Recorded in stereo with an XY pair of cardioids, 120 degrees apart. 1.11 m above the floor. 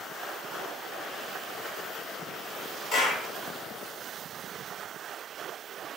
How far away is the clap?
About 2.5 m.